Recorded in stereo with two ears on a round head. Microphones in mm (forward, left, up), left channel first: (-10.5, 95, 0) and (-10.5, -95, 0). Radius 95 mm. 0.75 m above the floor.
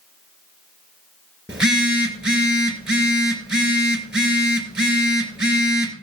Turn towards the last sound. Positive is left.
turn(degrees=-5)  # may be behind; listen again after turning